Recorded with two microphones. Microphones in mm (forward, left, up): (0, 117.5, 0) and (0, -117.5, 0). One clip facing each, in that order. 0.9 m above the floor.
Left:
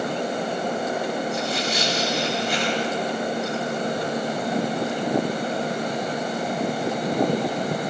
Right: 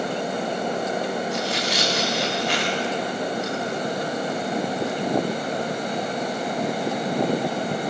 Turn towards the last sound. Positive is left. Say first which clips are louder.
# even
turn(degrees=-75)  # may be behind; listen again after turning